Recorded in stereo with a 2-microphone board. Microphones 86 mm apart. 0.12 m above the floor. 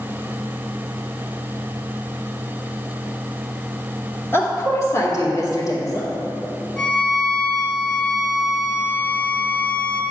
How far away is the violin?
About 1.2 m.